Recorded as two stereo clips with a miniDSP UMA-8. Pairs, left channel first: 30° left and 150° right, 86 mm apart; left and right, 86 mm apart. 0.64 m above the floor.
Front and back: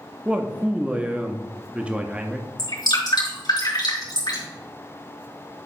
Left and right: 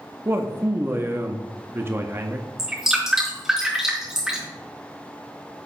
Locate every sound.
0.2 s a man speaking: 90° right, 0.6 m
2.6 s dripping: 5° right, 3.5 m